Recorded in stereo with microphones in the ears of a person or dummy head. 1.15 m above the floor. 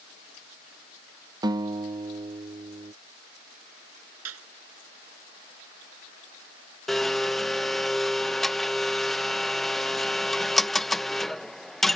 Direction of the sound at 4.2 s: 85° right.